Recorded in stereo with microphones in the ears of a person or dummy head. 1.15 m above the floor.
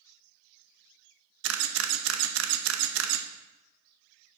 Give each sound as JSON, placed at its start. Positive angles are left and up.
{"t": 1.4, "sound": "a camera shutter", "side_deg": -75, "distance_m": 0.9}